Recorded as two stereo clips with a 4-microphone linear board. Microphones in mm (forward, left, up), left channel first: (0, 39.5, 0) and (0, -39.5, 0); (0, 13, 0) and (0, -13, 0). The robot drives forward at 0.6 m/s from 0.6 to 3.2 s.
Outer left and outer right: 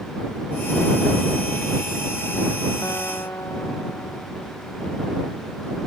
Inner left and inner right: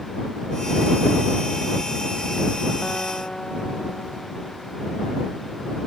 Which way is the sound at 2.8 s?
40° left (ahead or behind).